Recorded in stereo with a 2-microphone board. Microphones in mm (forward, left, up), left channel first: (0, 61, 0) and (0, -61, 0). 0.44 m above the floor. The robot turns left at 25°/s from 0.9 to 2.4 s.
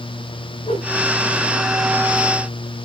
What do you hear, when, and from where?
0.7 s a whoosh: 75° left (ahead or behind), 10 m; by 0.9 s 80° left, 10 m